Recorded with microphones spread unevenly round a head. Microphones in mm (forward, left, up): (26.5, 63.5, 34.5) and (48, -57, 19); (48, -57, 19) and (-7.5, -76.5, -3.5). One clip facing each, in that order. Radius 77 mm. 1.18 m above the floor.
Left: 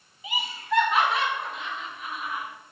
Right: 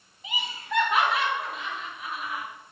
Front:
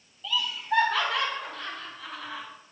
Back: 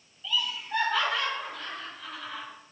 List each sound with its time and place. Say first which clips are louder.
0.2 s laughter: left 5 dB, front 3 dB; 15° left, 1.9 m; by 2.5 s 5° left, 4 m